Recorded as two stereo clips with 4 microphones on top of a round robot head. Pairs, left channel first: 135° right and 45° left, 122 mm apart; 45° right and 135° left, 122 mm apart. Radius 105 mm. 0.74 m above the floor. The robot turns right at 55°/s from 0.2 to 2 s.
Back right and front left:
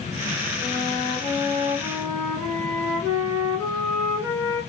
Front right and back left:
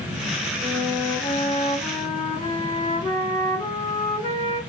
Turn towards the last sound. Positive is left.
turn(degrees=-35)